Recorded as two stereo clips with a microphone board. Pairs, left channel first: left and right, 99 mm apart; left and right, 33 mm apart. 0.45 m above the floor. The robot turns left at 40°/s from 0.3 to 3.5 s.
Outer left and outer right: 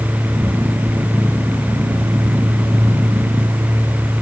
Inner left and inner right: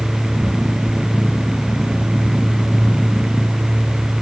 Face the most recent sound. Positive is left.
No sound to turn to.